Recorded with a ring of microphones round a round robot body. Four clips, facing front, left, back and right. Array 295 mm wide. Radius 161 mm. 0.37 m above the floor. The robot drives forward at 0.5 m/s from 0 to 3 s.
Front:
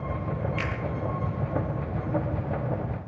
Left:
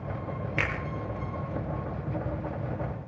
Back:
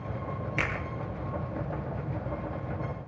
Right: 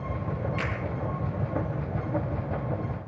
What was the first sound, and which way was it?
A finger snap, 105° left.